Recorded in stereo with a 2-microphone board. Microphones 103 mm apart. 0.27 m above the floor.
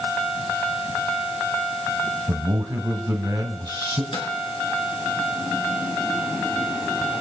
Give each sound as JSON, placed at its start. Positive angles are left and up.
{"t": 2.3, "sound": "a man speaking", "side_deg": -25, "distance_m": 1.0}
{"t": 4.1, "sound": "a microwave", "side_deg": 60, "distance_m": 3.0}